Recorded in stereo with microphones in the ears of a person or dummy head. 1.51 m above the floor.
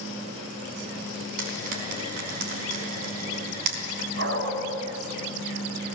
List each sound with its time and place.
1.4 s frying: 60° right (ahead or behind), 5 m
4.2 s a dog barking: 70° right (ahead or behind), 4.5 m